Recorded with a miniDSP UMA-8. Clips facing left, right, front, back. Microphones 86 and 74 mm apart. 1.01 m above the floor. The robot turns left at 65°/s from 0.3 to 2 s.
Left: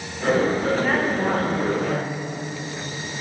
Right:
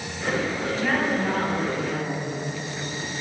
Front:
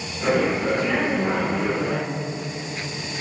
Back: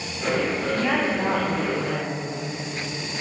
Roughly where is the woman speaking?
Behind.